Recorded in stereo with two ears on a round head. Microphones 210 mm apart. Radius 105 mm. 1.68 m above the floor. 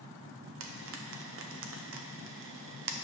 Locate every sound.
0.6 s frying: 60° right (ahead or behind), 0.7 m